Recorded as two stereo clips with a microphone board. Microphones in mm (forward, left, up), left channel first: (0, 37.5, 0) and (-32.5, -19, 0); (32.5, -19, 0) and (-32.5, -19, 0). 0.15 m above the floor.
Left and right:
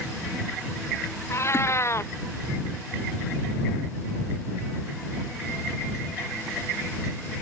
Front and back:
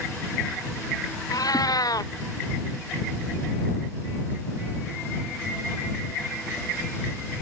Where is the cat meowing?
15° left.